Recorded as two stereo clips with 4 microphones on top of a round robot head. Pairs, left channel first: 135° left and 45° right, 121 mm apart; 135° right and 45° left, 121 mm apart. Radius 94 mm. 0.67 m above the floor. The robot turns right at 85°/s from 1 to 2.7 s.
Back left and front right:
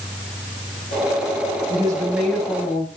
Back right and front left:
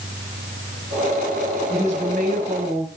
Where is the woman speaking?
Straight ahead, 5.5 m; by 2.9 s 85° left, 5.5 m.